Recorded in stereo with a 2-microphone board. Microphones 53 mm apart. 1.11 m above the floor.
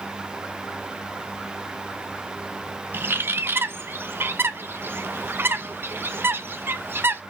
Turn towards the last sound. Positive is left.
turn(degrees=-45)  # may be behind; listen again after turning